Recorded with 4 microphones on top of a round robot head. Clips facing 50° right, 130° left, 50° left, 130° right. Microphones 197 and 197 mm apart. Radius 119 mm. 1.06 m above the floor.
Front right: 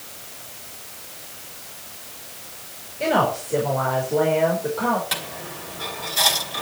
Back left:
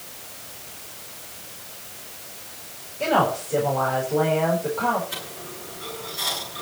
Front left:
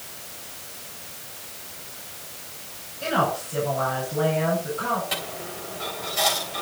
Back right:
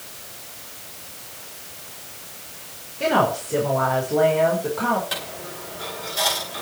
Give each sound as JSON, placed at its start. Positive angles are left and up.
{"t": 3.0, "sound": "a woman speaking", "azimuth_deg": -130, "distance_m": 5.0}
{"t": 5.1, "sound": "a dropped coin", "azimuth_deg": -50, "distance_m": 3.5}